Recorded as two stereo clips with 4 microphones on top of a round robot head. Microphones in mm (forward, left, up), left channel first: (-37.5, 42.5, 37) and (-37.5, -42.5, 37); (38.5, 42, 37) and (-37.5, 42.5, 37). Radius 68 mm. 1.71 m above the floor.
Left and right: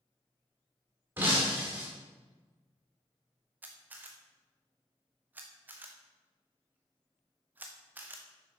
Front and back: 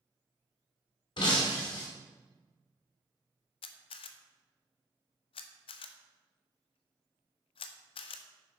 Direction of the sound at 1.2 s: 20° right.